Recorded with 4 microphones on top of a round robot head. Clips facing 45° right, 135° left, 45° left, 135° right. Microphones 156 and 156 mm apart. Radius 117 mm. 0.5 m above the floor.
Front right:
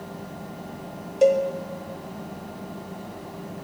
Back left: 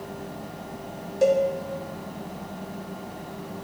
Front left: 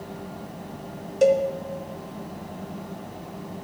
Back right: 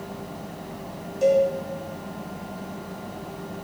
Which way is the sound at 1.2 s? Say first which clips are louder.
Front right 2 dB, even; 25° left.